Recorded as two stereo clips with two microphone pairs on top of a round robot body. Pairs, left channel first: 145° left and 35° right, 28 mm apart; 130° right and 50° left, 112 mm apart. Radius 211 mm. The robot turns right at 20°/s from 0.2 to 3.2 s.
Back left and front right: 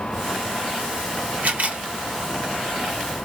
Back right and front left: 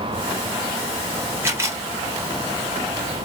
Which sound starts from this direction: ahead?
A camera shutter, at 1.4 s.